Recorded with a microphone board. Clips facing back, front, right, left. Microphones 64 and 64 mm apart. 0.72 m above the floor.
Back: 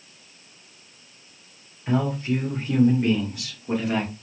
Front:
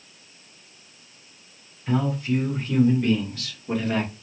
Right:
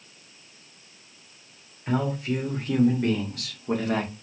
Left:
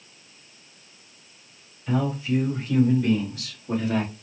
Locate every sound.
1.9 s a man speaking: 120° right, 3 m; by 4.1 s 95° right, 1.7 m